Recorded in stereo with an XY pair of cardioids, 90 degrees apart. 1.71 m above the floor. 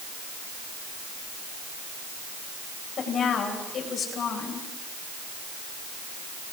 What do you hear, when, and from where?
3.0 s a woman speaking: 70° left, 9 m